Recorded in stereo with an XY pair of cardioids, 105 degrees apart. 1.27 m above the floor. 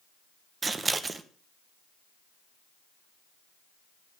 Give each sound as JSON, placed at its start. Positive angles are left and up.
{"t": 0.6, "sound": "scissors", "azimuth_deg": -30, "distance_m": 1.0}